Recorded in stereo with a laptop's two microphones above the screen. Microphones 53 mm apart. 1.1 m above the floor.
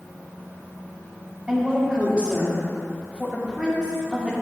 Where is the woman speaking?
10° right (ahead or behind), 3 m.